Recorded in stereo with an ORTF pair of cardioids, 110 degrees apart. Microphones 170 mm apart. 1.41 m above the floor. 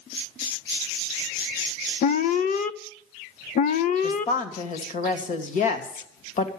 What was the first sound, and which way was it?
An alarm, 55° left.